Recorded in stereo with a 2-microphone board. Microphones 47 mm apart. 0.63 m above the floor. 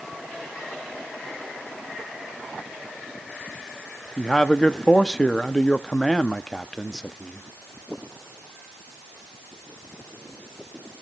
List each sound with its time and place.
4.2 s a man speaking: 20° left (ahead or behind), 0.7 m